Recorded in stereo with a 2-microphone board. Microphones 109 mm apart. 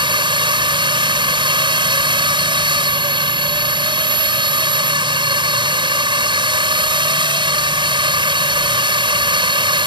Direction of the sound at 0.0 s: 50° right (ahead or behind).